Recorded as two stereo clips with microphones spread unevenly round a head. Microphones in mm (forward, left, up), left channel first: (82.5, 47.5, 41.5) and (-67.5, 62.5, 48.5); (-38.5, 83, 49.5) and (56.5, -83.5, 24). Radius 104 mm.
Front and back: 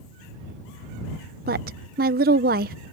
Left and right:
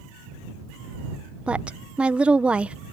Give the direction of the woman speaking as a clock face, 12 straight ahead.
5 o'clock.